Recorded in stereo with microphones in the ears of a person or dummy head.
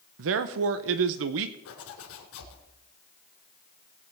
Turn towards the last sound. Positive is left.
turn(degrees=65)  # may be behind; listen again after turning